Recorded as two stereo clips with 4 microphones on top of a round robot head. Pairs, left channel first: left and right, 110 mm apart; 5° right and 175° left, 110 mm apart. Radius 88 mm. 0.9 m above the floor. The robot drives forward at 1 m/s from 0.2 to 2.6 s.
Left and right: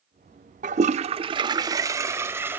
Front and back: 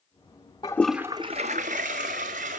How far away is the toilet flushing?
About 0.7 m.